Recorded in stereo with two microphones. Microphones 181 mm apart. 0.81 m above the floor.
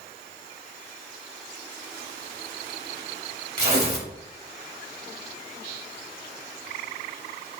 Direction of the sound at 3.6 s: 65° right (ahead or behind).